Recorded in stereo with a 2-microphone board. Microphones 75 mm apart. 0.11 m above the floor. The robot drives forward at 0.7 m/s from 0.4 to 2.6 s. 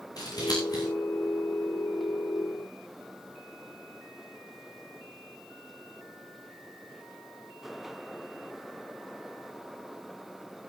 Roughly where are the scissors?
Left.